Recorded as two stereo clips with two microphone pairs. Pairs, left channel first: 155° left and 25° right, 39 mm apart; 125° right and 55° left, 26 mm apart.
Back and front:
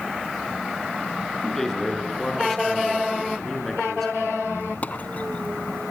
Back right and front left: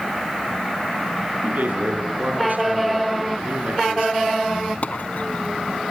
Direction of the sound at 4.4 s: 155° right.